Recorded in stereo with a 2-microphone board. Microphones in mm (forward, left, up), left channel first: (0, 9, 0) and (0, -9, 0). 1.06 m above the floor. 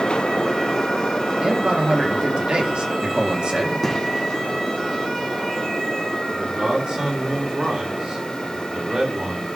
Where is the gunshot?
10° left (ahead or behind), 3.5 m.